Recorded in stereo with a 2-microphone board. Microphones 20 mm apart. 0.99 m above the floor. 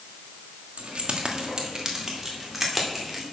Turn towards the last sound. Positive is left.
turn(degrees=5)  # may be behind; listen again after turning